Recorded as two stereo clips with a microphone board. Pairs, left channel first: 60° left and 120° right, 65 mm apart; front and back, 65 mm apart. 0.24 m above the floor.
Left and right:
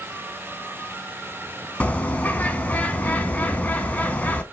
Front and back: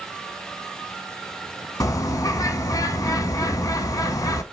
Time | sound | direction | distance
1.8 | a bird | straight ahead | 0.6 m